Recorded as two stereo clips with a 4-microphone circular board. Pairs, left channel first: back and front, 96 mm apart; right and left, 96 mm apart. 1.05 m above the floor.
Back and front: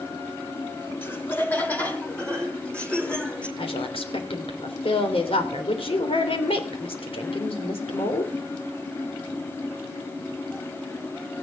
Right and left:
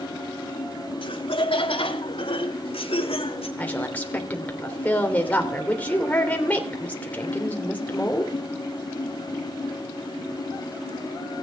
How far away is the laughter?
About 1.8 m.